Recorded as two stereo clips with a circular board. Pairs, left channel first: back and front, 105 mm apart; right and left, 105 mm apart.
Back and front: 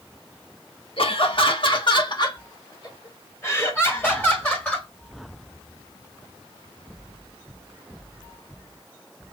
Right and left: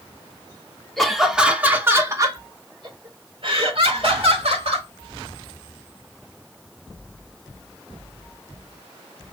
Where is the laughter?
175° right, 1.2 m; by 4.9 s 105° left, 2 m.